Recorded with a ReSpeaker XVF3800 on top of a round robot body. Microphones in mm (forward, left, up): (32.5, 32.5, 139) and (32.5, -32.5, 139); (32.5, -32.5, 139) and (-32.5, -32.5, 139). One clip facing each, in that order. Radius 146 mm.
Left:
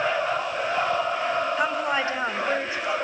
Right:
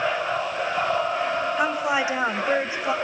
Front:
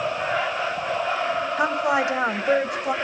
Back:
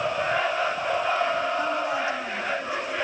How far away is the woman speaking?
About 2.5 m.